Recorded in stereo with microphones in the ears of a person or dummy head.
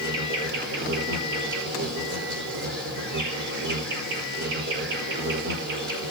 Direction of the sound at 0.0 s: 60° right (ahead or behind).